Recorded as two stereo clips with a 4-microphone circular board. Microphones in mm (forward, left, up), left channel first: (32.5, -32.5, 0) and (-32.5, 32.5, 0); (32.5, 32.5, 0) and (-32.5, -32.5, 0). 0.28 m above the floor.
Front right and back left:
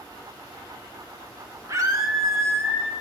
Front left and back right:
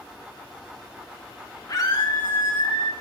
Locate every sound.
1.7 s a scream: 85° left, 3.5 m; by 2.9 s 70° left, 3.5 m